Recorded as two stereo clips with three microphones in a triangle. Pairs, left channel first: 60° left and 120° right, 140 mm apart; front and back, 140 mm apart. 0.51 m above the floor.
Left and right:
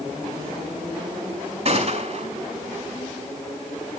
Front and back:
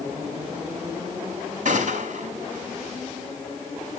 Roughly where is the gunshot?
Behind.